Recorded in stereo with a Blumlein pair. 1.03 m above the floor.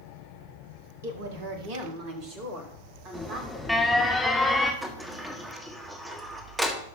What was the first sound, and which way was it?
A woman speaking, 60° right.